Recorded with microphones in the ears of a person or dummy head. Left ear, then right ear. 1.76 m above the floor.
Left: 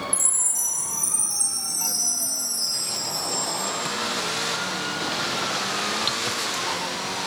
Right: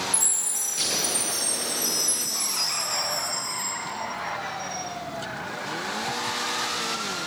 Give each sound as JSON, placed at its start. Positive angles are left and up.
{"t": 0.1, "sound": "a chime", "side_deg": 30, "distance_m": 1.2}